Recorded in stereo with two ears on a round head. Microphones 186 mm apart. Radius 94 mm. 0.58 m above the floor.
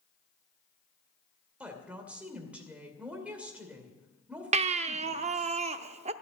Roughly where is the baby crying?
Right.